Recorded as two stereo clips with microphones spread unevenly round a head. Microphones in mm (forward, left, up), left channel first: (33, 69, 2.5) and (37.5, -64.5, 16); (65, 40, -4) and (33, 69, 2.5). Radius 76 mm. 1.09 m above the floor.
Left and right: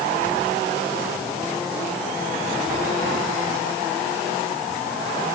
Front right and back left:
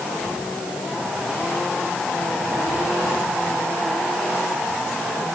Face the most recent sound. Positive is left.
No sound to turn to.